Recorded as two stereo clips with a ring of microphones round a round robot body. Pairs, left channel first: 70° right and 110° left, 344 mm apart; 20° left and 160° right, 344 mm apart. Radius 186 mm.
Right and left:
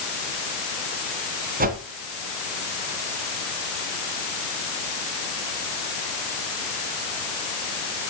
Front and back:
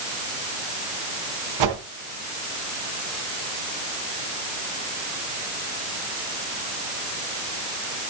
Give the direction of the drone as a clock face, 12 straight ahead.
No drone in this recording.